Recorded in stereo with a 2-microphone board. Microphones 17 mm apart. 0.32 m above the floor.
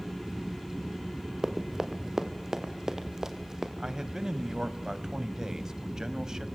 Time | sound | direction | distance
1.4 | running footsteps | 40° right (ahead or behind) | 2.5 m
3.8 | a man speaking | 40° right (ahead or behind) | 2 m